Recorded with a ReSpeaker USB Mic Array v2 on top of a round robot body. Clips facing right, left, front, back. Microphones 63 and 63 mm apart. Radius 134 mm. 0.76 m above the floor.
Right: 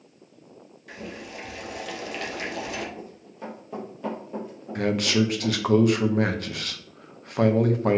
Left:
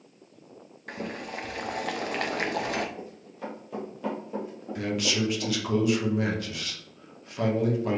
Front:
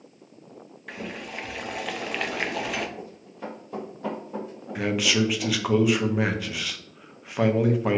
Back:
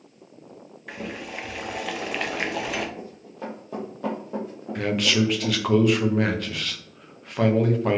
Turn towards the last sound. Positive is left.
turn(degrees=-85)